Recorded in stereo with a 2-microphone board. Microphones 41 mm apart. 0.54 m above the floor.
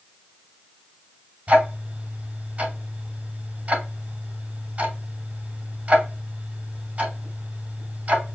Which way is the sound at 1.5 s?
35° right (ahead or behind).